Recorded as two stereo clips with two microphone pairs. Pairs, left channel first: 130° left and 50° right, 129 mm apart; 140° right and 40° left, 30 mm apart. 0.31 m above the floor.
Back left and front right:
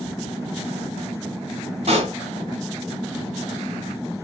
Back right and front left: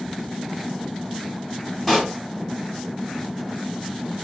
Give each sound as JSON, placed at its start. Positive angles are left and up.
{"t": 1.9, "sound": "a pop", "azimuth_deg": -50, "distance_m": 2.0}